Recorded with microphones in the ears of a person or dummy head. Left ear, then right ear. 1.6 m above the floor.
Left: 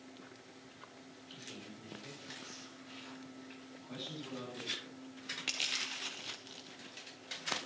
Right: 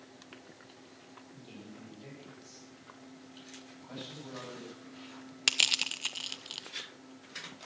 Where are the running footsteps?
No running footsteps in this recording.